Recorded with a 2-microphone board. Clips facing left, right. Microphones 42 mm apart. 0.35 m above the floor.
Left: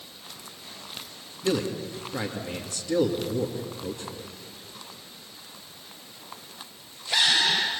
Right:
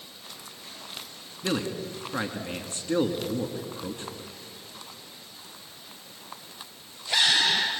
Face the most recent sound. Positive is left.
turn(degrees=-35)  # may be behind; listen again after turning